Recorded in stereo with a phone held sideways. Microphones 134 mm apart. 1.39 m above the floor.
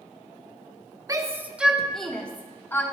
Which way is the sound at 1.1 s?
25° right (ahead or behind).